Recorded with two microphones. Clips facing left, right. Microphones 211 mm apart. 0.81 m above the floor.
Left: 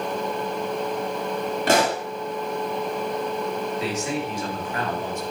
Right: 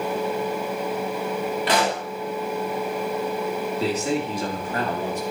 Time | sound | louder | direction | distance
1.7 | a pop | left 4 dB | 45° left (ahead or behind) | 1.4 m
3.8 | a man speaking | right 3 dB | 35° right (ahead or behind) | 2 m